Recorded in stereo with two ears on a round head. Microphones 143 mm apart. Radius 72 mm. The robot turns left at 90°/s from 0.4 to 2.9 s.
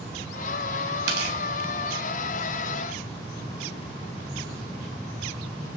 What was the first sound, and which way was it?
Tearing paper, 85° right.